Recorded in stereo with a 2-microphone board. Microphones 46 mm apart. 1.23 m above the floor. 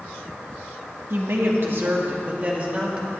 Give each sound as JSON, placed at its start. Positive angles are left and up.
{"t": 1.1, "sound": "a woman speaking", "side_deg": -65, "distance_m": 1.4}